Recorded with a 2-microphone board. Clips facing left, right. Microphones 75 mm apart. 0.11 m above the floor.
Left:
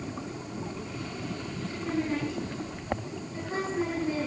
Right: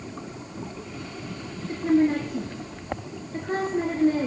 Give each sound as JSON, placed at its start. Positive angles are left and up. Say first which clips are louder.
{"t": 1.7, "sound": "a woman speaking", "louder": "right 10 dB", "side_deg": -50, "distance_m": 2.5}